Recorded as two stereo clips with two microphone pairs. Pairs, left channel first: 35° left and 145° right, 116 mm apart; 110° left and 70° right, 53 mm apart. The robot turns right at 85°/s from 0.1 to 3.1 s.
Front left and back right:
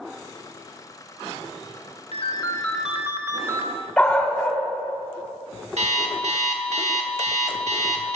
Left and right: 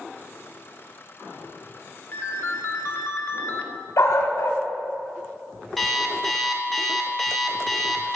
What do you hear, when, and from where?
2.1 s a ringtone: 65° left, 0.8 m; by 3.7 s 150° left, 0.8 m
4.0 s a dog barking: 115° left, 1.3 m
5.8 s an alarm clock: 160° right, 1.2 m